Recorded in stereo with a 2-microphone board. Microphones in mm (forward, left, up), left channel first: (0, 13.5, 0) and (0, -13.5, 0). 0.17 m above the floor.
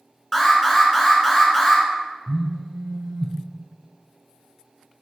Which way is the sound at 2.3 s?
20° left (ahead or behind).